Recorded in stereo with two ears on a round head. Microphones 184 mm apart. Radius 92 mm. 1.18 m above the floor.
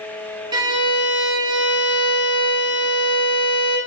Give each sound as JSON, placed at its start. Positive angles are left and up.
{"t": 0.5, "sound": "a violin", "side_deg": -20, "distance_m": 0.5}